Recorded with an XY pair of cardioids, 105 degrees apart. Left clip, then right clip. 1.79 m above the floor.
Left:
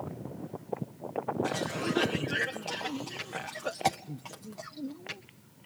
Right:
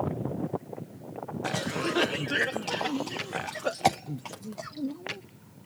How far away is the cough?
About 0.5 m.